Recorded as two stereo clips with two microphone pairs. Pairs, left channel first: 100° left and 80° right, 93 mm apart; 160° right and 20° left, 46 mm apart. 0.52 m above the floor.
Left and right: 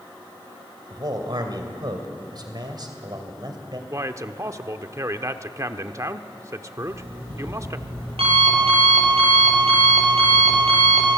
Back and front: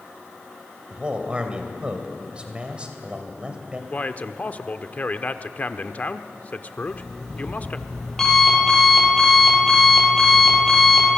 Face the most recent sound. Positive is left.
turn(degrees=-75)